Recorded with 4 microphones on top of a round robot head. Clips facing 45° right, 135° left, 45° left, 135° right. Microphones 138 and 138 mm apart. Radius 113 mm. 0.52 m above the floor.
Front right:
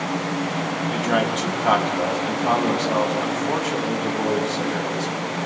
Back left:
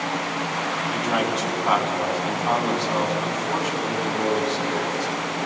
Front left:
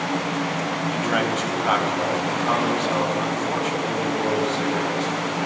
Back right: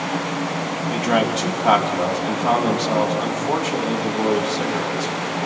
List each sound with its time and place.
0.9 s a man speaking: 80° right, 3.5 m